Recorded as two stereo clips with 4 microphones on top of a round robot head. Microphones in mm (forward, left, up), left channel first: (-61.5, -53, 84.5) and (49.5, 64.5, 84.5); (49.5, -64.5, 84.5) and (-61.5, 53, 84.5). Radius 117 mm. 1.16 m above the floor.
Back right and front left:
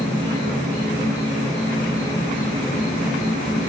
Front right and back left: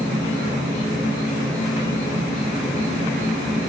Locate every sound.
0.0 s an insect: 90° right, 1.4 m